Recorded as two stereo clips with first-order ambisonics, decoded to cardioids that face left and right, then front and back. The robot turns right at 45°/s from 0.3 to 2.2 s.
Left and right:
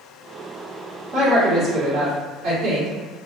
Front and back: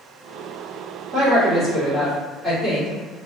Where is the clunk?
No clunk in this recording.